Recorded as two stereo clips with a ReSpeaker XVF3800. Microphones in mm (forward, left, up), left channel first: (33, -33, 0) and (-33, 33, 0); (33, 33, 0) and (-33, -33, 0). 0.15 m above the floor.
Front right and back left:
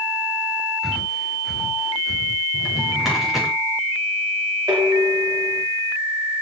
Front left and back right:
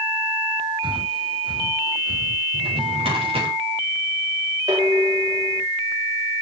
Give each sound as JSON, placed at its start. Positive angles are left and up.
{"t": 0.8, "sound": "breathing", "azimuth_deg": -135, "distance_m": 1.7}
{"t": 2.5, "sound": "a drawer", "azimuth_deg": -140, "distance_m": 6.5}
{"t": 4.7, "sound": "dishes clattering", "azimuth_deg": -175, "distance_m": 7.5}